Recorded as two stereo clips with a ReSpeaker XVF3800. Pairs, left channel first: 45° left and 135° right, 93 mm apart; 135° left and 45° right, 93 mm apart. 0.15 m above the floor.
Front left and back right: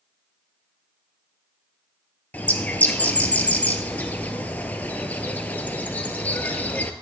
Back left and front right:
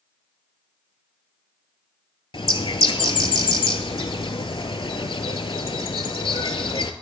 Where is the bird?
115° left, 0.5 m.